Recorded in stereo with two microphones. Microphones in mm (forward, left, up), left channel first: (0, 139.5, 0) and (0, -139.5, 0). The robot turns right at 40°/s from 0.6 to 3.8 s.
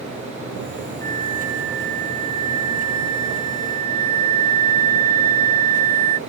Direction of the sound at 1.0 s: 10° left.